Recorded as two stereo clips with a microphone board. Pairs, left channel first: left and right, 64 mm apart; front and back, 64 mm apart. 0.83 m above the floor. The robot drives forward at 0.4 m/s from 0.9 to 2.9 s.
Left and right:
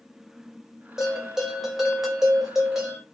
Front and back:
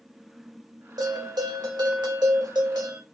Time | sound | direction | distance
1.0 | a bell | 175° right | 2.5 m